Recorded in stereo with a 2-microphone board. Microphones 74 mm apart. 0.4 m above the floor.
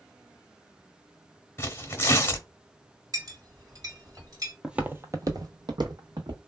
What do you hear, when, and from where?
1.6 s tearing paper: 30° left (ahead or behind), 0.7 m
3.1 s a clink: 50° right (ahead or behind), 1.5 m
4.6 s footsteps: 10° right (ahead or behind), 0.5 m; by 6.4 s 70° right (ahead or behind), 1.1 m